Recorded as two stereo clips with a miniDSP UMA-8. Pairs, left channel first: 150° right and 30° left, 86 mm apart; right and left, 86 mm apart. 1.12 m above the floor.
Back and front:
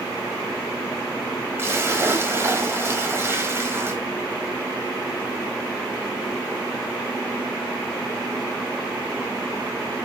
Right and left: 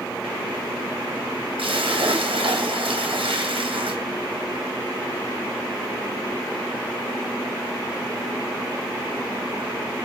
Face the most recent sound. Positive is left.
turn(degrees=90)